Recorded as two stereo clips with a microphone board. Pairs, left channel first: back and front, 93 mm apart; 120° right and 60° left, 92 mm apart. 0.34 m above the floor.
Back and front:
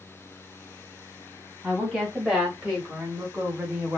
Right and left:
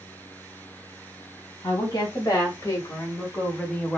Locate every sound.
1.6 s a woman speaking: 95° right, 1.6 m; by 4.0 s 40° right, 0.9 m